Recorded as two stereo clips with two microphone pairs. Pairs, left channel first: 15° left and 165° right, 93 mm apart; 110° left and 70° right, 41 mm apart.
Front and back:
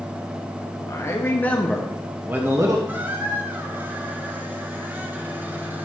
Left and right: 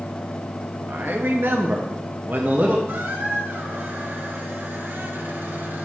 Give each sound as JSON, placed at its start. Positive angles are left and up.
{"t": 0.9, "sound": "a man speaking", "azimuth_deg": -40, "distance_m": 1.5}
{"t": 2.9, "sound": "a squeak", "azimuth_deg": -95, "distance_m": 1.1}